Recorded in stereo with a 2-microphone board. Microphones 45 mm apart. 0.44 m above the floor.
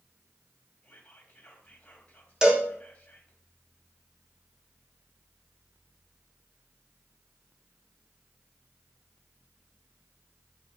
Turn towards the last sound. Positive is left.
turn(degrees=-10)  # may be behind; listen again after turning